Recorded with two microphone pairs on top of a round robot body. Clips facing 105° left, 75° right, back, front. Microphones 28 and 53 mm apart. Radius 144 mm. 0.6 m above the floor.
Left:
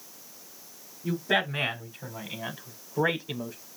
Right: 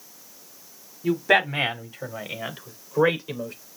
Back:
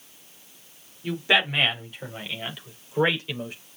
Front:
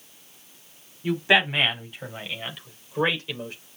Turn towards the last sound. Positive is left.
turn(degrees=-100)